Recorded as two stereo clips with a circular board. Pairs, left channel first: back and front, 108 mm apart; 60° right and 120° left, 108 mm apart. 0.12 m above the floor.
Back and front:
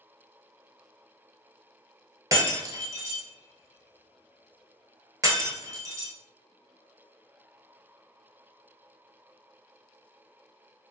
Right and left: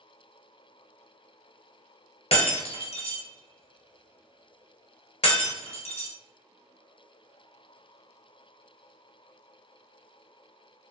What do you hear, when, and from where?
2.3 s breaking glass: 55° right, 0.8 m